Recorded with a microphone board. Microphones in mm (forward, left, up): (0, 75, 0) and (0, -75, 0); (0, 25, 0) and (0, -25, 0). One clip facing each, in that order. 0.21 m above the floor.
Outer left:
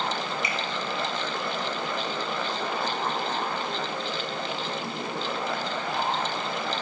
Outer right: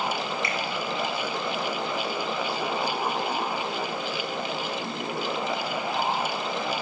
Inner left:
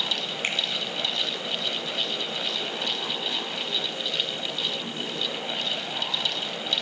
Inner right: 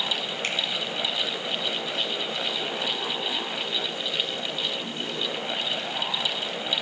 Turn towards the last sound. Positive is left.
turn(degrees=20)  # may be behind; listen again after turning